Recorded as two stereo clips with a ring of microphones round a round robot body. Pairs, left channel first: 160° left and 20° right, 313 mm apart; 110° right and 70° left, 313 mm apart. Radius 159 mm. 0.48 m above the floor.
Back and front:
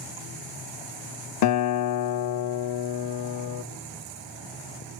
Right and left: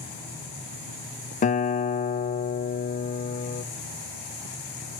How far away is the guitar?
About 0.6 m.